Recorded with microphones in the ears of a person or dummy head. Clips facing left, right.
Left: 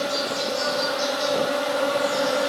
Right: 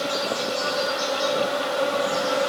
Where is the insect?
45° right (ahead or behind), 4 m.